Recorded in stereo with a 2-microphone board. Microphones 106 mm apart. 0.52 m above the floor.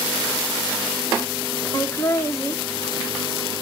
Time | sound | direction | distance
1.7 | laughter | 25° left (ahead or behind) | 0.8 m